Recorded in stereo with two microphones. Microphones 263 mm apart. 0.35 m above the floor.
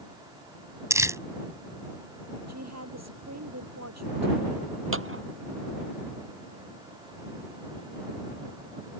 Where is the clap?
50° right (ahead or behind).